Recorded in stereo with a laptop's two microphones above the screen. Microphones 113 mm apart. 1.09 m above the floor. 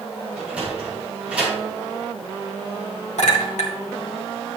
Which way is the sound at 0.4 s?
10° right (ahead or behind).